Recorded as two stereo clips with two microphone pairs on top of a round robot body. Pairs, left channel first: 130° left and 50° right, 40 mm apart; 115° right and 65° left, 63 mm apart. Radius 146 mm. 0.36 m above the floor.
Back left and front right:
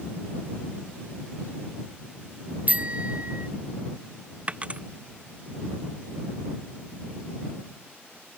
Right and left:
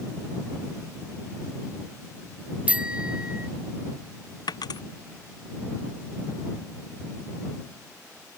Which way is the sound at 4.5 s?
110° right.